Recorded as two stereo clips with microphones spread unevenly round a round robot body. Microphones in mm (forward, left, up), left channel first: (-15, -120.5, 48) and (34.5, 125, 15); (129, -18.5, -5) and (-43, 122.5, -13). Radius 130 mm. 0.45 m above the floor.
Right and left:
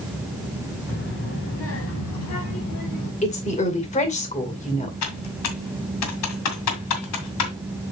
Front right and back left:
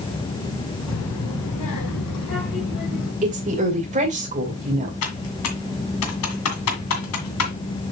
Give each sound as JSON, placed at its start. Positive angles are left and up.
{"t": 0.9, "sound": "a child speaking", "azimuth_deg": -50, "distance_m": 3.0}
{"t": 3.2, "sound": "a woman speaking", "azimuth_deg": -165, "distance_m": 2.5}
{"t": 5.0, "sound": "typing on a keyboard", "azimuth_deg": -75, "distance_m": 1.9}